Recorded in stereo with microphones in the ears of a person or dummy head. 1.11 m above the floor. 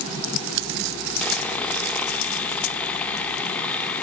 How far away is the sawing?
About 1.2 m.